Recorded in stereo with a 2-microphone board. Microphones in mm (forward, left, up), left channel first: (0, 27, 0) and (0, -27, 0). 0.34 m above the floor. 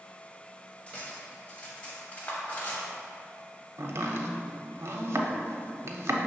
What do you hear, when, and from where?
0.9 s cutlery clinking: 25° left (ahead or behind), 0.9 m
3.8 s chopping: 65° right (ahead or behind), 0.5 m